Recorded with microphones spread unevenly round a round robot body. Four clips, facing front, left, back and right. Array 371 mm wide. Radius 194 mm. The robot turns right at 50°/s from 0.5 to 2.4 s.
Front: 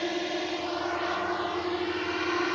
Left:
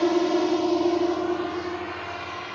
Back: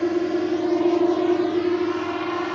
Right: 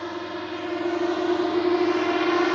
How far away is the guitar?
I don't hear a guitar.